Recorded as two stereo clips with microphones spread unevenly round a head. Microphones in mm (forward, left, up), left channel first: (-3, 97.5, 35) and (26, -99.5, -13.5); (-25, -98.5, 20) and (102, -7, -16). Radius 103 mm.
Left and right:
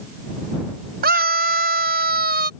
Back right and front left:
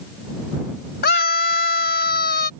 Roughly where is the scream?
Behind right.